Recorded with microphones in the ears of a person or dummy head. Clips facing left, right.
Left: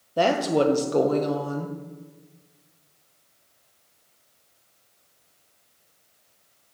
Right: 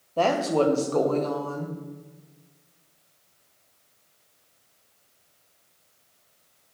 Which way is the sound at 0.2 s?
20° left (ahead or behind).